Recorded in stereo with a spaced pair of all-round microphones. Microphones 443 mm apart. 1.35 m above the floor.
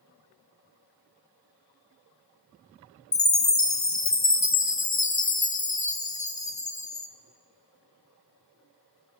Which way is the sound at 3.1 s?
40° left (ahead or behind).